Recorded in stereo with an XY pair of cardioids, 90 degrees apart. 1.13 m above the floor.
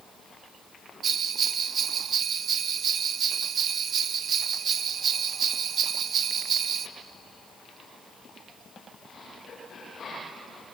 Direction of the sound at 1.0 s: 60° right.